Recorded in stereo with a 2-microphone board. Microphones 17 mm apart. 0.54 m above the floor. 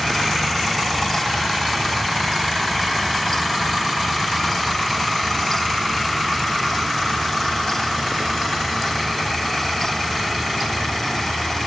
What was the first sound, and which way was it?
Only background noise.